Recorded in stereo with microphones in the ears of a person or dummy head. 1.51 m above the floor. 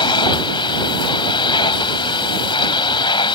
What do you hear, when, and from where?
0.0 s a machine running: 25° left (ahead or behind)